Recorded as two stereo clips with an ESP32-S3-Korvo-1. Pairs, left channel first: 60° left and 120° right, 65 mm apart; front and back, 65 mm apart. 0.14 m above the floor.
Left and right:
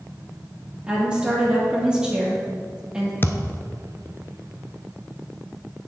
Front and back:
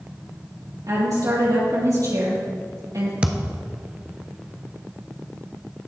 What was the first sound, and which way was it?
A woman speaking, 165° left.